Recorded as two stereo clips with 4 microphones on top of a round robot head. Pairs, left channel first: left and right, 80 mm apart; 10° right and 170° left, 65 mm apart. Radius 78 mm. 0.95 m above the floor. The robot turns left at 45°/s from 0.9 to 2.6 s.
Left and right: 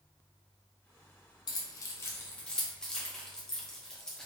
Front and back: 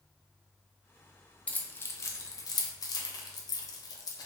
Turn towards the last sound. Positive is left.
turn(degrees=10)